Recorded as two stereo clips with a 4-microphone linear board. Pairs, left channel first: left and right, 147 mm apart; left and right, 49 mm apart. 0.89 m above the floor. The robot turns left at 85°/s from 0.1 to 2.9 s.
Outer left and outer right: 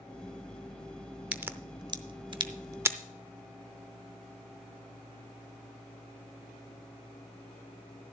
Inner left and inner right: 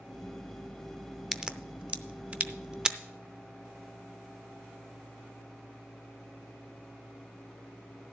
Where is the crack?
10° right (ahead or behind), 0.6 m; by 3.0 s 15° right (ahead or behind), 0.6 m.